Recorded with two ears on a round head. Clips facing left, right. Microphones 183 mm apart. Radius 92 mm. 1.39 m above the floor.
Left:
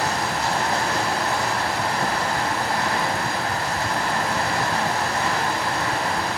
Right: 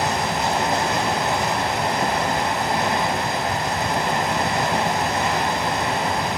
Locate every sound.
0.0 s running water: 20° right (ahead or behind), 1.2 m